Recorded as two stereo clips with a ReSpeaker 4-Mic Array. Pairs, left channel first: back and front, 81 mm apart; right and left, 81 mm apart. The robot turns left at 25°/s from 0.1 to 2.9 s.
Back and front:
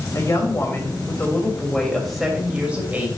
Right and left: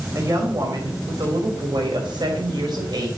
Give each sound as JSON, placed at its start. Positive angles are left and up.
{"t": 0.1, "sound": "a woman speaking", "azimuth_deg": 140, "distance_m": 2.0}